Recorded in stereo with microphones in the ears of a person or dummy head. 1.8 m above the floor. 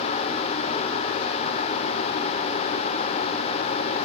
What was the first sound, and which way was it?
Only background noise.